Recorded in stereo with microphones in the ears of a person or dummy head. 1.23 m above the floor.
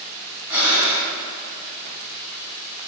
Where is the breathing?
10° right (ahead or behind), 2.5 m.